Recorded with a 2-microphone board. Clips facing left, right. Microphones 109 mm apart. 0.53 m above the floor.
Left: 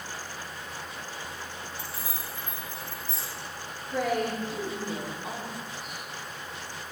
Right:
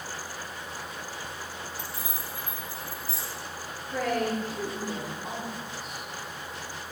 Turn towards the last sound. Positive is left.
turn(degrees=5)  # may be behind; listen again after turning